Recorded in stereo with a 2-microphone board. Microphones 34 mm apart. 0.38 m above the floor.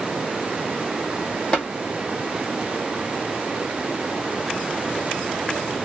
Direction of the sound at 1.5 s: 35° left (ahead or behind).